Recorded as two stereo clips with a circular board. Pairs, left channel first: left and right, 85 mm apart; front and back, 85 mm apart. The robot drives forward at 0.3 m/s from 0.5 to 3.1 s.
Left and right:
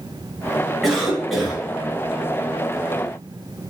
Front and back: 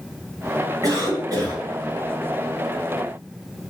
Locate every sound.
0.8 s a cough: straight behind, 1.9 m